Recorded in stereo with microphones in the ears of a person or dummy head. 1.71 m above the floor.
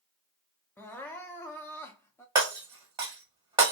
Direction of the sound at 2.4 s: 15° right (ahead or behind).